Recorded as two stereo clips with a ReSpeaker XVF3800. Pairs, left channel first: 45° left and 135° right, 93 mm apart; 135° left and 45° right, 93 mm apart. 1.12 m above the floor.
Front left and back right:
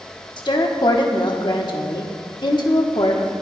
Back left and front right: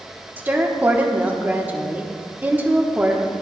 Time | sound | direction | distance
0.4 | a woman speaking | 20° left | 1.1 m